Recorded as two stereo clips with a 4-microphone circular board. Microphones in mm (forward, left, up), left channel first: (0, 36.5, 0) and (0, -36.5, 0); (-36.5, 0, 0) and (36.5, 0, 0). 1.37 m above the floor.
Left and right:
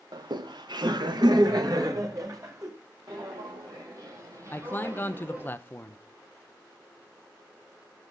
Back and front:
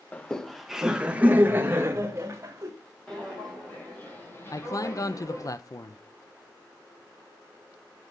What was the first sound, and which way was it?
Laughter, 105° right.